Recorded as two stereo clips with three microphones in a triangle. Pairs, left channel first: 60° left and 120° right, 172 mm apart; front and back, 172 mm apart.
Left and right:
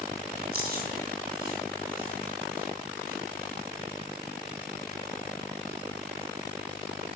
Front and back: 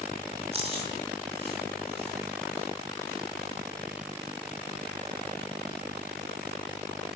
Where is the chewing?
130° right, 2.5 m.